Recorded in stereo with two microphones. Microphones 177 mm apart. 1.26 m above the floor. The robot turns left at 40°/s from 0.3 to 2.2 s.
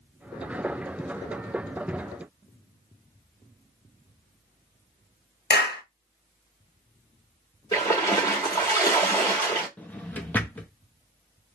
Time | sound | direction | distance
5.5 | a clap | 75° left (ahead or behind) | 0.9 m
7.7 | a splash | 25° left (ahead or behind) | 1.4 m
9.8 | a drawer | 10° left (ahead or behind) | 0.6 m